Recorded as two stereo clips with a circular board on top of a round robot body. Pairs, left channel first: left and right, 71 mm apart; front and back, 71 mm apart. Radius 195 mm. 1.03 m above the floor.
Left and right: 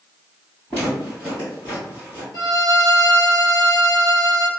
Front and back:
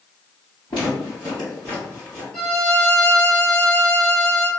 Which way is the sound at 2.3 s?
70° left.